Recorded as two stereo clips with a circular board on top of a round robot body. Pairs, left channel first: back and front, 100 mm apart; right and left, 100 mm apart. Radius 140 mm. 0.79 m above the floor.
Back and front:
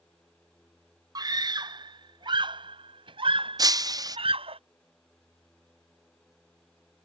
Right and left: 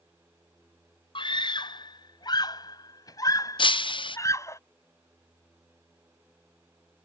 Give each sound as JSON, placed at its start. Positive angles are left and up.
{"t": 1.1, "sound": "a scream", "azimuth_deg": -50}
{"t": 3.6, "sound": "breaking glass", "azimuth_deg": -50}